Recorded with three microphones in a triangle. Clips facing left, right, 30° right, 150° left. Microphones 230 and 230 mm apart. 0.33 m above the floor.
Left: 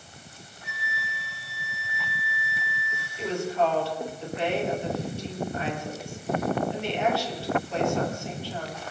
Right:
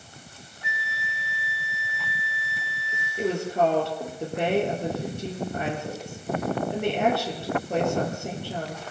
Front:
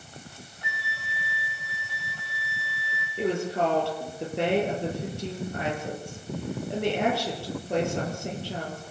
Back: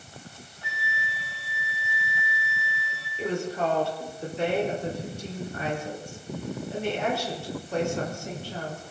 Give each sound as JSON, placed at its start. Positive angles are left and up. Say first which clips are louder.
{"t": 0.6, "sound": "a flute", "louder": "right 2 dB, back 4 dB", "azimuth_deg": -100, "distance_m": 6.5}
{"t": 3.2, "sound": "a woman speaking", "louder": "right 3 dB, front 2 dB", "azimuth_deg": -55, "distance_m": 8.5}